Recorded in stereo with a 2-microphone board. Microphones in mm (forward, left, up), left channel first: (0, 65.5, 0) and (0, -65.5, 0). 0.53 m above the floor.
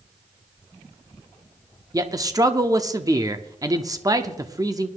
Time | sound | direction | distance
1.9 | a man speaking | 25° right (ahead or behind) | 0.7 m